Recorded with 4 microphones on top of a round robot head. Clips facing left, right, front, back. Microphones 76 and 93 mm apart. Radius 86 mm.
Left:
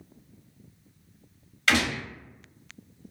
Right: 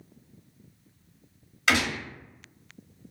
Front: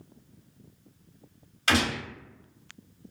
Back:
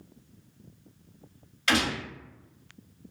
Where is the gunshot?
30° right, 1.8 m.